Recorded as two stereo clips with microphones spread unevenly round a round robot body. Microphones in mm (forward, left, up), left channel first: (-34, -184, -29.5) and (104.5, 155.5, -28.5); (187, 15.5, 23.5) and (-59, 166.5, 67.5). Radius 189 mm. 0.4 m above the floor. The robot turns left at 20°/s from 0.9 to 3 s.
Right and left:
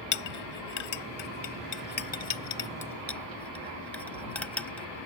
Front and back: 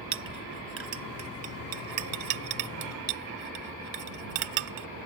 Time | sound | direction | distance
0.1 | a clink | 155° right | ?